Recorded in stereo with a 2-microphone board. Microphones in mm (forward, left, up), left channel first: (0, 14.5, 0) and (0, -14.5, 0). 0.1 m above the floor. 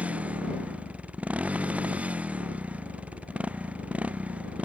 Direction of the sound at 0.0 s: 55° right (ahead or behind).